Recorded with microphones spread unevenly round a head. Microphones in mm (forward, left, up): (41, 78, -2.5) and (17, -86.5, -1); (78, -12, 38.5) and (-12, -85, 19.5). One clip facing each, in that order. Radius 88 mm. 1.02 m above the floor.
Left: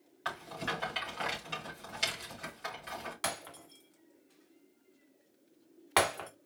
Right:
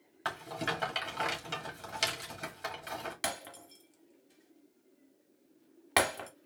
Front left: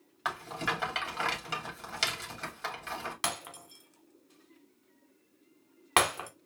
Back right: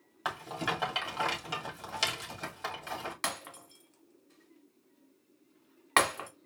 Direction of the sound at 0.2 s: 70° right.